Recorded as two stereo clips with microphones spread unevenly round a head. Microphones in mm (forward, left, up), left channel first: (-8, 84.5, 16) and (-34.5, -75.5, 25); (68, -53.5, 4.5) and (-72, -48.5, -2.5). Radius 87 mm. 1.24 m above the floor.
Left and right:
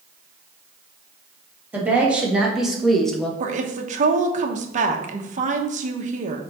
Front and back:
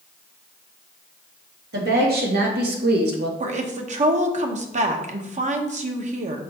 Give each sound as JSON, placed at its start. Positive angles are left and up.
{"t": 1.7, "sound": "a woman speaking", "azimuth_deg": 180, "distance_m": 2.5}
{"t": 3.4, "sound": "a woman speaking", "azimuth_deg": -145, "distance_m": 1.2}